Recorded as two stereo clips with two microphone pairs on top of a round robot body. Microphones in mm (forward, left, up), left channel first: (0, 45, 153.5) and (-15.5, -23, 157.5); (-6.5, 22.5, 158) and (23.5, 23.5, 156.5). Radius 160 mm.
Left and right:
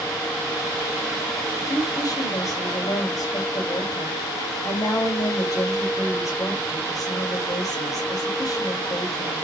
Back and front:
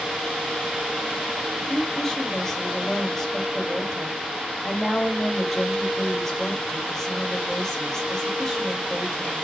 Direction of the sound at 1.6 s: 105° left.